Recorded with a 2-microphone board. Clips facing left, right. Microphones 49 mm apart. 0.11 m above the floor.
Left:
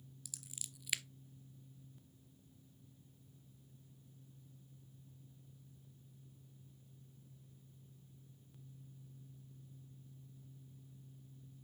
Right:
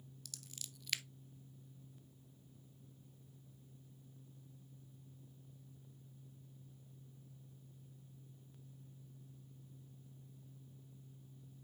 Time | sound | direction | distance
0.2 | scissors | 10° left (ahead or behind) | 0.6 m